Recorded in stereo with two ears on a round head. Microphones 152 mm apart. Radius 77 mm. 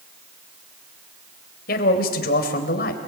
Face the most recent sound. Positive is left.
turn(degrees=55)  # may be behind; listen again after turning